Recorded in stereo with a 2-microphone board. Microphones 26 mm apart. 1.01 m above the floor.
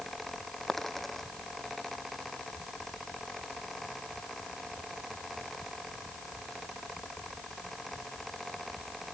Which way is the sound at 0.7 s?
5° left (ahead or behind).